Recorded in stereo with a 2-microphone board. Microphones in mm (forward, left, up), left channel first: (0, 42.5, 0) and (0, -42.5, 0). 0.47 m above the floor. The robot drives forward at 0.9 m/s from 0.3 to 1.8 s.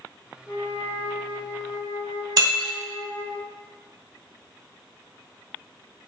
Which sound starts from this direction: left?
A flute, at 0.5 s.